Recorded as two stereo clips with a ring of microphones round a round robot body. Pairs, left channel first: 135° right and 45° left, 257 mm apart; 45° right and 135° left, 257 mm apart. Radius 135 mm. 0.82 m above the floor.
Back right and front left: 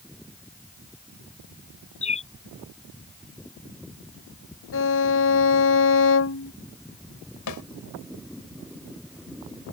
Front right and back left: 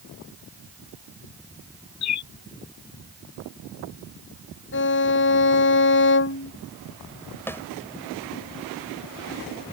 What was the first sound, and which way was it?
A bird, 70° right.